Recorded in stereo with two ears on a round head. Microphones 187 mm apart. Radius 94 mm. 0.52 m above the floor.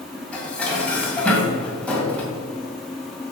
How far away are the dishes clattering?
About 2.0 m.